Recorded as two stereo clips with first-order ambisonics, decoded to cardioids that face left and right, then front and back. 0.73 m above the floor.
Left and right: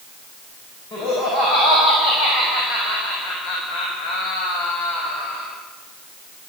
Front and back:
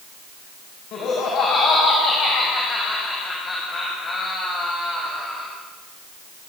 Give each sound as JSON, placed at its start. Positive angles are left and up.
{"t": 0.9, "sound": "laughter", "azimuth_deg": 45, "distance_m": 5.5}